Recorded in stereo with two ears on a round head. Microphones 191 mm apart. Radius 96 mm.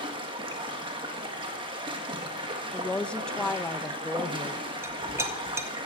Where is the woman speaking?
5° left (ahead or behind), 0.6 m.